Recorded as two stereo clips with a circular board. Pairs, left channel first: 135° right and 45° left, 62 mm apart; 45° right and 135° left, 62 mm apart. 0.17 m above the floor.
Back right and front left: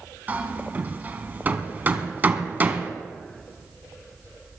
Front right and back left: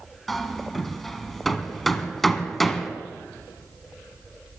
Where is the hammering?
40° left, 1.4 m.